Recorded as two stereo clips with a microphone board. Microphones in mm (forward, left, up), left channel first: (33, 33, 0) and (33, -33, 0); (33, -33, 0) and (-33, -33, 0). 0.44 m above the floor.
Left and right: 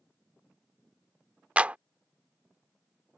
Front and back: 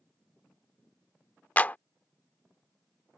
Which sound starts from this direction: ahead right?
A clap, at 1.6 s.